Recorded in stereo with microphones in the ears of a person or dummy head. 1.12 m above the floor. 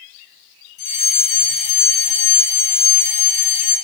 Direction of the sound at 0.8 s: 45° left (ahead or behind).